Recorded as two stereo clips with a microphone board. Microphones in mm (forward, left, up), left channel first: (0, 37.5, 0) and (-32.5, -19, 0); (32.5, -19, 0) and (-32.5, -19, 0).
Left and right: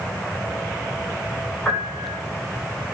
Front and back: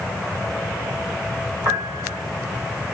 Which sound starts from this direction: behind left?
A piano, at 1.6 s.